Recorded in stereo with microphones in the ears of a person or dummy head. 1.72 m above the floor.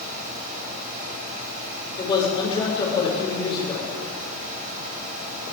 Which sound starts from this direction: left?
A man speaking, at 2.0 s.